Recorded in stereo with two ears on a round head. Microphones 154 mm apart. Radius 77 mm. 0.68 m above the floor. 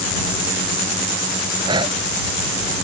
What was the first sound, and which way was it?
Breathing, 30° right (ahead or behind).